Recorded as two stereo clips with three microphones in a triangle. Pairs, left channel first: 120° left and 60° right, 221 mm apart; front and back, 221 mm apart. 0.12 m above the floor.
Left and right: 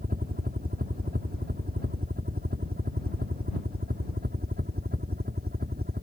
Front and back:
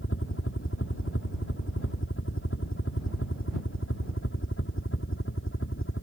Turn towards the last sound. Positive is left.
turn(degrees=-15)